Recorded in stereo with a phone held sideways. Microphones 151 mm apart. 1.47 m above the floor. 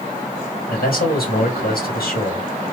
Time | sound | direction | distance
0.7 | a man speaking | 85° left | 1.8 m